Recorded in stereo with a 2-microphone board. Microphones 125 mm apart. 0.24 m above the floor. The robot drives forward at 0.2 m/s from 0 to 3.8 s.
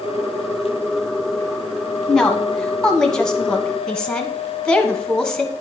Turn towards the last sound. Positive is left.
turn(degrees=5)  # may be behind; listen again after turning